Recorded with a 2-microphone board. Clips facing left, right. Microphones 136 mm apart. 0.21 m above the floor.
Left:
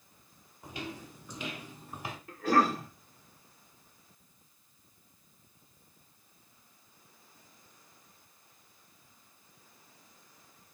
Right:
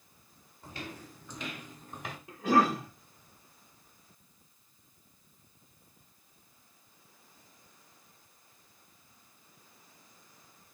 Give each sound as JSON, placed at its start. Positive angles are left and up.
{"t": 0.6, "sound": "footsteps", "side_deg": 15, "distance_m": 5.0}
{"t": 2.3, "sound": "a cough", "side_deg": -15, "distance_m": 5.0}